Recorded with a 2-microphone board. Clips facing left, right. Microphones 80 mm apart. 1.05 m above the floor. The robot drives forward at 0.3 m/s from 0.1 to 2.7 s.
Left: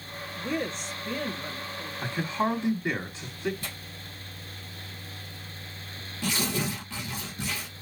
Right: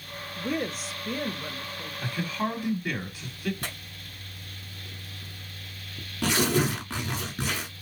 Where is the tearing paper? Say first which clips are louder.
Right 2 dB; 75° right (ahead or behind), 1.4 m.